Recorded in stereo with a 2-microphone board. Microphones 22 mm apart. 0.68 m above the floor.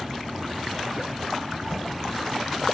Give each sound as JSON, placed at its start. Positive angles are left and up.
{"t": 1.7, "sound": "knocking", "side_deg": -65, "distance_m": 2.0}